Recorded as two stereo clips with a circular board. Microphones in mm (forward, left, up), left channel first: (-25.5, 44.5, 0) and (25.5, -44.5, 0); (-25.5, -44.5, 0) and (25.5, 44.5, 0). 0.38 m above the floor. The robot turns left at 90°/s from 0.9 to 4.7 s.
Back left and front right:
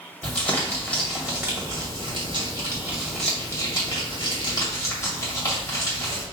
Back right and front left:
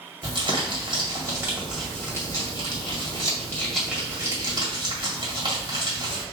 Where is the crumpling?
55° left, 2 m; by 6.2 s 70° left, 2 m.